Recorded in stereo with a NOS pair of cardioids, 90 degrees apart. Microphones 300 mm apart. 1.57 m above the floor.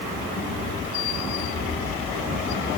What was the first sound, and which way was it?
Only background noise.